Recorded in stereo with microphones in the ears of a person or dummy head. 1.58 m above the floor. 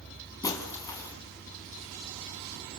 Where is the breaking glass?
20° left (ahead or behind), 3.5 m.